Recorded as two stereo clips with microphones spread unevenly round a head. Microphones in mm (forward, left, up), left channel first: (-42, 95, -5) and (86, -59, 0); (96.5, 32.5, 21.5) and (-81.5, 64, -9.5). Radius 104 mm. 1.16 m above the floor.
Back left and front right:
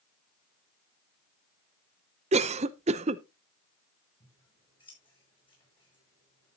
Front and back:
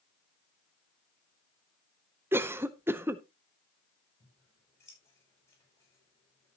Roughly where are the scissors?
Ahead left.